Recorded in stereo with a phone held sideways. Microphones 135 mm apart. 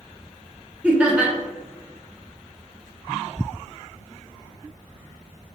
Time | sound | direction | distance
0.8 | laughter | 10° right (ahead or behind) | 0.8 m